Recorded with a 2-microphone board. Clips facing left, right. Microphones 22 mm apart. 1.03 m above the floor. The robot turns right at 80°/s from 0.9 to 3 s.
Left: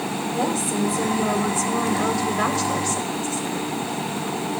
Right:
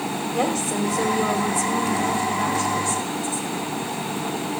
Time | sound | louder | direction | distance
0.3 | a woman speaking | right 1 dB | 35° right | 4 m